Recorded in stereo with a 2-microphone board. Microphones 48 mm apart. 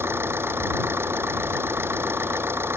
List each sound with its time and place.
0.0 s an engine running: 50° right (ahead or behind)